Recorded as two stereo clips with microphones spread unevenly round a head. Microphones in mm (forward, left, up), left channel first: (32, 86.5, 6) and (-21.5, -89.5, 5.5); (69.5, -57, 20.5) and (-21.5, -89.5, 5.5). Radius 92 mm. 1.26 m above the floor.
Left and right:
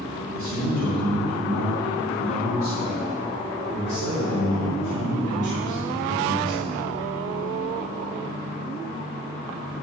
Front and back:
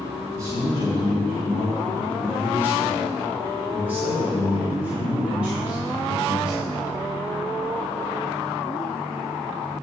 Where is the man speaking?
110° right, 3 m; by 6.8 s 80° right, 7 m.